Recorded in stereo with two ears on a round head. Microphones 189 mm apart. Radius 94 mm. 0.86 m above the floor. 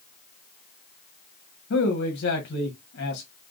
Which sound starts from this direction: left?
A man speaking, at 1.7 s.